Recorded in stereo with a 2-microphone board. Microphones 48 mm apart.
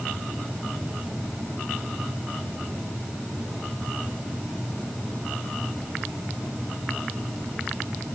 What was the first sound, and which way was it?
Only background noise.